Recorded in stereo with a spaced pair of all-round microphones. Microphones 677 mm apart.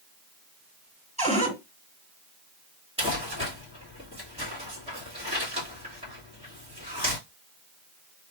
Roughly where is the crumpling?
Centre.